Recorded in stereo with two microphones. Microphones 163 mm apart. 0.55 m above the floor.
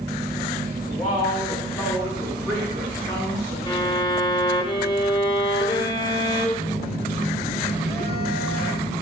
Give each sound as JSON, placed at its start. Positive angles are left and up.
{"t": 0.9, "sound": "a woman speaking", "side_deg": 25, "distance_m": 3.0}
{"t": 3.7, "sound": "a violin", "side_deg": 25, "distance_m": 1.0}
{"t": 6.6, "sound": "a phone buzzing", "side_deg": 35, "distance_m": 2.5}